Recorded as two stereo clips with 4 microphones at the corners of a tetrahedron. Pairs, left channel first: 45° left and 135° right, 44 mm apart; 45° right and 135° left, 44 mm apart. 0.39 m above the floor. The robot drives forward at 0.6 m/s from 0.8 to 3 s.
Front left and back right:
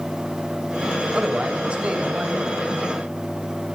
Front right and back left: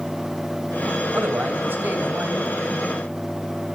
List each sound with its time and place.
1.1 s a man speaking: 160° left, 1.9 m; by 2.6 s 170° left, 2.5 m